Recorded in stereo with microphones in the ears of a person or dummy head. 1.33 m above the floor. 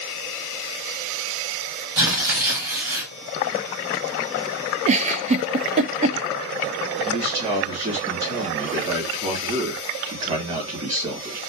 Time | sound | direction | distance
2.0 | tearing paper | 15° right (ahead or behind) | 2.5 m
4.9 | a giggle | 35° right (ahead or behind) | 0.6 m
7.0 | a man speaking | 30° right (ahead or behind) | 3 m